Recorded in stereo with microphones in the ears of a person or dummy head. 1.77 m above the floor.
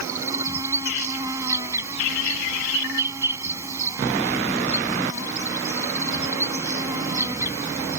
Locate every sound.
0.0 s an insect: 20° right (ahead or behind)